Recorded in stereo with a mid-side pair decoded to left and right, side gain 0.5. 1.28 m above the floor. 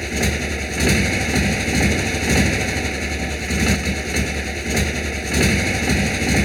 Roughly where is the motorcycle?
Ahead.